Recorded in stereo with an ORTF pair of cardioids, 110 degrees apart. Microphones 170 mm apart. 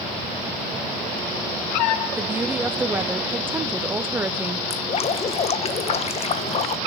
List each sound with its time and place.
2.2 s a woman speaking: 10° right, 1.3 m
4.7 s dripping: 40° left, 1.1 m